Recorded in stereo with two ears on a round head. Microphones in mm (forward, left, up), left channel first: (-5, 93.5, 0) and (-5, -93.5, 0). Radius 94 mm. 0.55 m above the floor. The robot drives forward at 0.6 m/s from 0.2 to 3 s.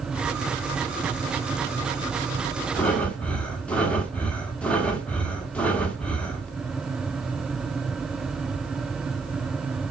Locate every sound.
2.8 s breathing: 5° left (ahead or behind), 1.6 m